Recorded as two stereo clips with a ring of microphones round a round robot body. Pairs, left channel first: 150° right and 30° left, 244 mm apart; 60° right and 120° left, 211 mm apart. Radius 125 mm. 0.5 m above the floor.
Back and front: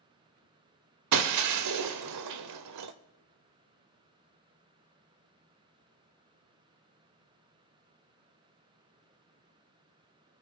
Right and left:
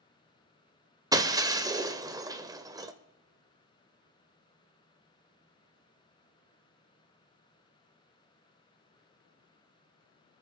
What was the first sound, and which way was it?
Breaking glass, 45° left.